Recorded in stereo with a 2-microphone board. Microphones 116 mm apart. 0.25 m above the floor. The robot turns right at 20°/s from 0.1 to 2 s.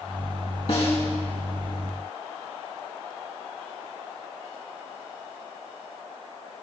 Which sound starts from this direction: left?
A snare drum, at 0.7 s.